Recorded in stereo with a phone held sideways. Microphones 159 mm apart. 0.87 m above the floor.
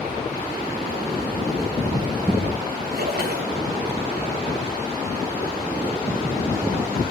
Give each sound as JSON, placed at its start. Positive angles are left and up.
{"t": 2.9, "sound": "a splash", "side_deg": -85, "distance_m": 2.5}